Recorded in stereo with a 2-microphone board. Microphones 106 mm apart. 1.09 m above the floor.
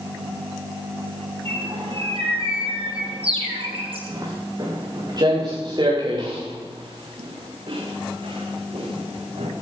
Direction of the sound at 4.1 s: 35° right (ahead or behind).